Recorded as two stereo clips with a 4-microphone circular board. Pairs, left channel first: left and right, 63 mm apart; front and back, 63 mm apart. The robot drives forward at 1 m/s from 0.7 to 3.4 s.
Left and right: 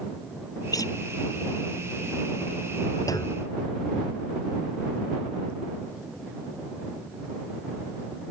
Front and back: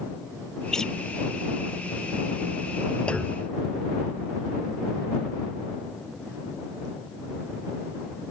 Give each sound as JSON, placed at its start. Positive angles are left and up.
{"t": 0.7, "sound": "a guitar", "azimuth_deg": 80}
{"t": 3.1, "sound": "a clunk", "azimuth_deg": 70}